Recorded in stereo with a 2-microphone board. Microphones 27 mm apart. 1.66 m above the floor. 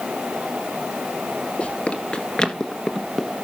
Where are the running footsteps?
45° left (ahead or behind), 2.5 m; by 3.4 s 5° right (ahead or behind), 1.9 m.